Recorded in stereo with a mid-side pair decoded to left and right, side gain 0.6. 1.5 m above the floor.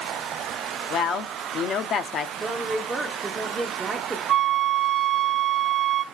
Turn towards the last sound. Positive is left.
turn(degrees=-40)